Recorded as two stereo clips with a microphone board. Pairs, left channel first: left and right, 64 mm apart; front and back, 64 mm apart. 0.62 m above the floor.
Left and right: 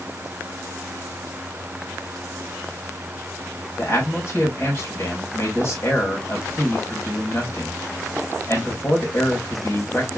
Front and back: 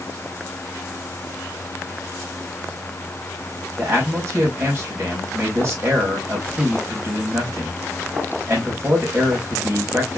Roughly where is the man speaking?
Behind left.